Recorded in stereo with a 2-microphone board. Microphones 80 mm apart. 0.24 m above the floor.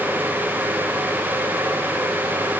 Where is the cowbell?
No cowbell in this recording.